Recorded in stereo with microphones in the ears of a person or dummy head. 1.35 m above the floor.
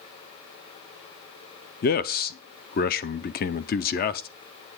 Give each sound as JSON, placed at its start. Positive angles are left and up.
{"t": 1.8, "sound": "a man speaking", "side_deg": 40, "distance_m": 0.7}